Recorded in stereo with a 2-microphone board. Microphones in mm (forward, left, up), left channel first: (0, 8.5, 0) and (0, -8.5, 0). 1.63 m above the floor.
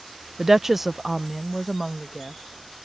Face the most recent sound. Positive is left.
turn(degrees=10)  # may be behind; listen again after turning